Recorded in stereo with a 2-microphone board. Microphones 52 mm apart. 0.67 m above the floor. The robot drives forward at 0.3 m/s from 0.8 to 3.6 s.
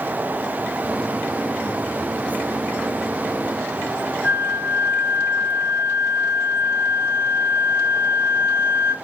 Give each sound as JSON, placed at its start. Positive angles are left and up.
{"t": 4.2, "sound": "a flute", "side_deg": -30, "distance_m": 3.5}